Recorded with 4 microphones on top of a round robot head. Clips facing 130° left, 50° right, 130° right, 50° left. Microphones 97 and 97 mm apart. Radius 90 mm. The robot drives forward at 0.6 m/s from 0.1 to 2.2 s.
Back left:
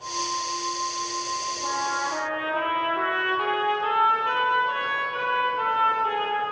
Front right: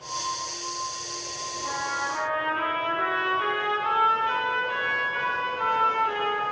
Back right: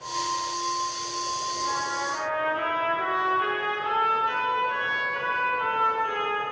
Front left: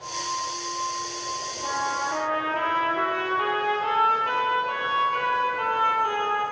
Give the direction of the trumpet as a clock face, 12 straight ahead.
9 o'clock.